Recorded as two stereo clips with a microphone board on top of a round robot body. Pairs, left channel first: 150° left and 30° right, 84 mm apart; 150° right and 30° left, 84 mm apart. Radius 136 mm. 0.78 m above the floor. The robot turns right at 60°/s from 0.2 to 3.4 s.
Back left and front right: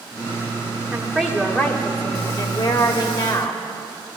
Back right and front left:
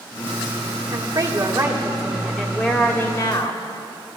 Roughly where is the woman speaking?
Ahead left.